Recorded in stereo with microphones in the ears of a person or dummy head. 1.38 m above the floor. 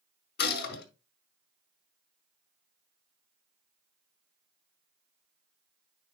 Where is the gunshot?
65° left (ahead or behind), 6 m.